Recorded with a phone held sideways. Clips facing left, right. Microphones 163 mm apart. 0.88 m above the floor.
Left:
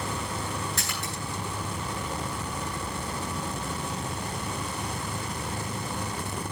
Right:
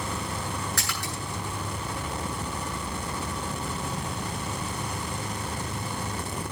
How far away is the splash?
About 8 m.